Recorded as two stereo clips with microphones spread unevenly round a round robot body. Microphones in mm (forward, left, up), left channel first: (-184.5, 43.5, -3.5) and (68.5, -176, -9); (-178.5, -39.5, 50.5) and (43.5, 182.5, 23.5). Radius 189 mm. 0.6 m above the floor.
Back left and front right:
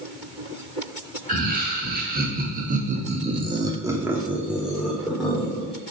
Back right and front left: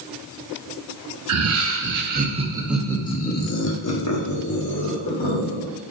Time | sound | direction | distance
1.3 | laughter | 25° left | 1.3 m